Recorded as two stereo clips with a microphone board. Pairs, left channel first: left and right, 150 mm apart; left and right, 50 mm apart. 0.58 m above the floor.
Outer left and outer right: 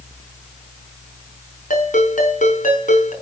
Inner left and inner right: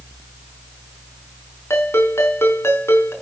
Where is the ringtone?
60° left (ahead or behind), 6 m.